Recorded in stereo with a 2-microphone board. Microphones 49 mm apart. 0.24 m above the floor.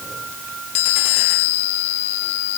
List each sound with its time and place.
Only background noise.